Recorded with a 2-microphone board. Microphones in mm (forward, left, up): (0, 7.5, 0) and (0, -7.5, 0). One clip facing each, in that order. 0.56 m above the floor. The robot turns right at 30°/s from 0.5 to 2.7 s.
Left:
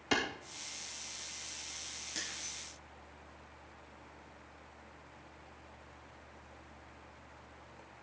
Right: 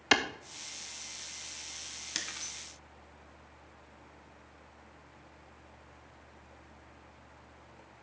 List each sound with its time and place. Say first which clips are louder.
0.1 s a clap: right 6 dB; 45° right (ahead or behind), 0.9 m
2.1 s breaking glass: right 4 dB; 45° right (ahead or behind), 1.7 m; by 2.5 s 55° right (ahead or behind), 1.7 m